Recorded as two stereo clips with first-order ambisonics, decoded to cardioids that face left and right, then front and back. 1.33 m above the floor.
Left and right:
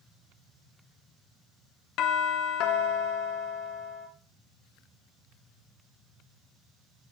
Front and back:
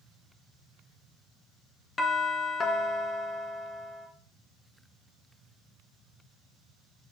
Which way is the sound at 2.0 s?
70° left.